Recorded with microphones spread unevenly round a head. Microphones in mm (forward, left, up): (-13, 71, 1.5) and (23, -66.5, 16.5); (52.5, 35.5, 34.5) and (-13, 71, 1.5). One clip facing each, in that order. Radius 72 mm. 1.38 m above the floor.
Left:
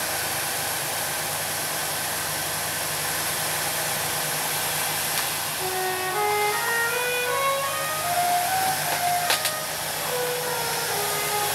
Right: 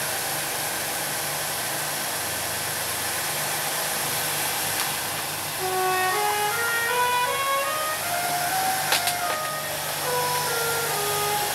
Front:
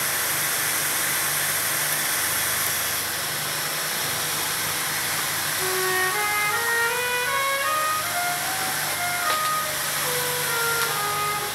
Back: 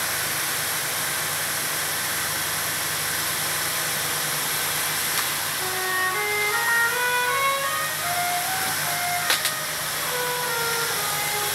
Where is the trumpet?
95° right, 8 m.